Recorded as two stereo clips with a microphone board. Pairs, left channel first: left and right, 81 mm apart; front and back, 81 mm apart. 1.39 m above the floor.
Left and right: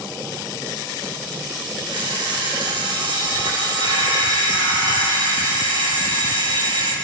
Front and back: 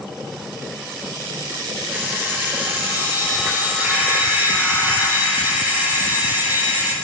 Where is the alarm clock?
110° right, 7 m.